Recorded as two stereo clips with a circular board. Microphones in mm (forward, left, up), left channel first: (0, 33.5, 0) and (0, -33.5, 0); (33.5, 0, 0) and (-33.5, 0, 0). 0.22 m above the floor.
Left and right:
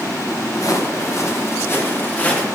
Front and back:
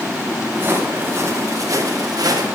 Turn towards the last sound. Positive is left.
turn(degrees=160)